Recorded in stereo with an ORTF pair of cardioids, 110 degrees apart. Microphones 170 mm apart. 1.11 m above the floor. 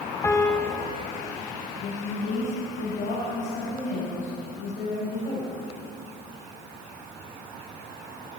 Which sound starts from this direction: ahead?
A piano, at 0.2 s.